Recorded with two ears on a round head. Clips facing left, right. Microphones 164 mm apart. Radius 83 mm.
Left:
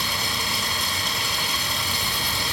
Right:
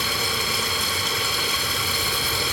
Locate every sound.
0.0 s running water: 60° right (ahead or behind), 2.5 m